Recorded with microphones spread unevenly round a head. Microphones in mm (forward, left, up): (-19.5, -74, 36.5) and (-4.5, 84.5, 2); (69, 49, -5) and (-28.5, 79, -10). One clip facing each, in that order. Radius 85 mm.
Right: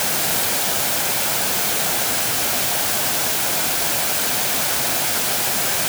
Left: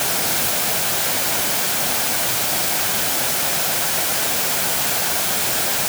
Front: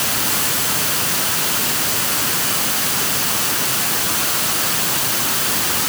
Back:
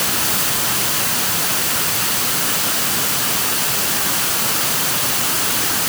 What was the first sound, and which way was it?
Only background noise.